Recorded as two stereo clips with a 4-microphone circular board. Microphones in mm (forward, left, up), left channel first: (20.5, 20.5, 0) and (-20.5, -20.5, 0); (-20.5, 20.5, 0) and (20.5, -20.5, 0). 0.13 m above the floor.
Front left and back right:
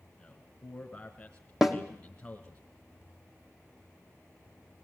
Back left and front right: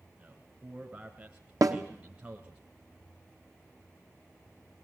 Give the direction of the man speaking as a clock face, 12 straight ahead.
12 o'clock.